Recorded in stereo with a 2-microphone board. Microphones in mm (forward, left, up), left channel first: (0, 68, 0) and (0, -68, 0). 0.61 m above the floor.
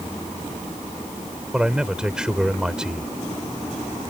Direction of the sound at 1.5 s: 5° right (ahead or behind).